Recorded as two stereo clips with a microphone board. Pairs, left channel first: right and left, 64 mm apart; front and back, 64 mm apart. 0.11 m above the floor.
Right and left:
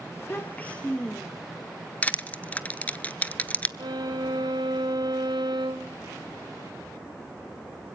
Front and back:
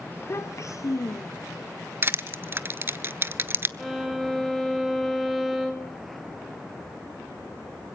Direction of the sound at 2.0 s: 150° right.